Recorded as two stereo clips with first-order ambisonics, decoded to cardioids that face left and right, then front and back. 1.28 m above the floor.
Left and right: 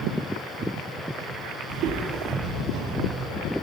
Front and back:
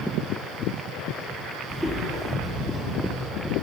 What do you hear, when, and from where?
1.7 s footsteps: 90° right, 2 m; by 3.3 s 115° right, 1.6 m